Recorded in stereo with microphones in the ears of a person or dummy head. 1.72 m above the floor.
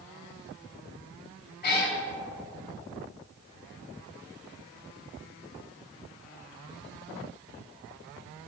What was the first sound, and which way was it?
A cat meowing, 45° left (ahead or behind).